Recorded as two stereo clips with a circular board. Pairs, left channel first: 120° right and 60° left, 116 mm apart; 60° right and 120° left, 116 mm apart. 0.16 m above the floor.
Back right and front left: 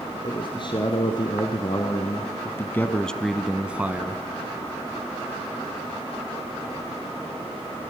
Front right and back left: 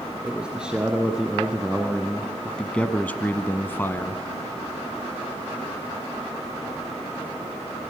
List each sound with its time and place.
0.2 s a man speaking: 160° right, 2.5 m; by 4.2 s straight ahead, 1.4 m